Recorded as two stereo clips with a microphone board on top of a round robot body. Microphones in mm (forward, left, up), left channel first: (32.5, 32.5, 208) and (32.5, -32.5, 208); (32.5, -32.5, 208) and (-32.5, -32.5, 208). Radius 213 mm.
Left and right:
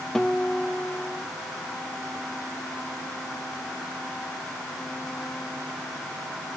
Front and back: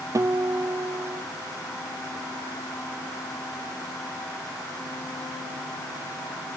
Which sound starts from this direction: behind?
A guitar, at 0.1 s.